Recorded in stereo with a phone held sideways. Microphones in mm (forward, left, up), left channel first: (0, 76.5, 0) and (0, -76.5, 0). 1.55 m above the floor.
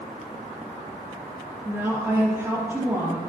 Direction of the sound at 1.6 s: 15° right (ahead or behind).